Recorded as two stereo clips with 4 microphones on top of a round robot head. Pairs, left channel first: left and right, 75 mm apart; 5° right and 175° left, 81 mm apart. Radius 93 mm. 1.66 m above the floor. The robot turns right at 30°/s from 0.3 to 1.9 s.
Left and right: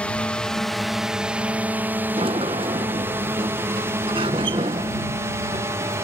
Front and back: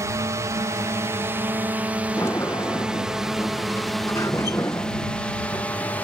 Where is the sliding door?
75° right.